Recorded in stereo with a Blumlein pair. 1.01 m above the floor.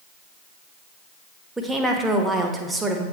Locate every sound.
1.6 s a woman speaking: 5° right, 1.0 m